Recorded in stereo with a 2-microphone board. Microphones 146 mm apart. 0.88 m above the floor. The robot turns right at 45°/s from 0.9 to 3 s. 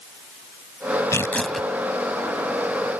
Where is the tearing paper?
20° left (ahead or behind); by 1.7 s 5° right (ahead or behind).